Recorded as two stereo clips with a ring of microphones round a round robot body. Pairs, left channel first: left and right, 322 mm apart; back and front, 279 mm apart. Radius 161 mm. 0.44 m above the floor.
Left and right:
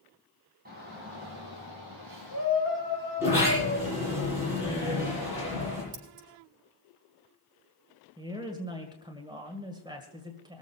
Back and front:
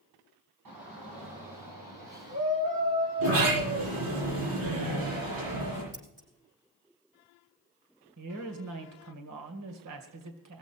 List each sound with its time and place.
0.7 s a shout: 30° right, 3.5 m; by 4.2 s 40° right, 7 m
3.2 s a sliding door: 10° right, 9.5 m
5.9 s scissors: 70° right, 6 m
8.2 s a woman speaking: 15° right, 1.8 m